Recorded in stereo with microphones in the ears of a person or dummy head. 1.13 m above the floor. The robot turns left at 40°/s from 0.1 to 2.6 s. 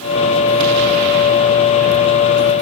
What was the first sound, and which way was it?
Only background noise.